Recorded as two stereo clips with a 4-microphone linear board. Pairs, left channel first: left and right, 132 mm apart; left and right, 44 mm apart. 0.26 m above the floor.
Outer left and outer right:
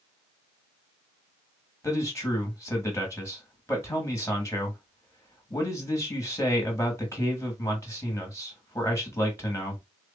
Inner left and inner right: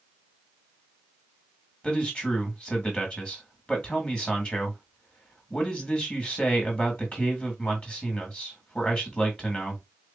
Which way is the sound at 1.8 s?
25° left (ahead or behind).